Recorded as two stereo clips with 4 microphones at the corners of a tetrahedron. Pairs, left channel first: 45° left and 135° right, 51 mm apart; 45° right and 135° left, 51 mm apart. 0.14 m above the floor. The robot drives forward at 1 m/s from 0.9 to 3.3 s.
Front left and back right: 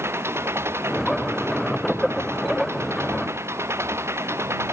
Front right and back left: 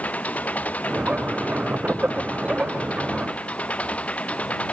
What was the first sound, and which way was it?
An engine running, 105° right.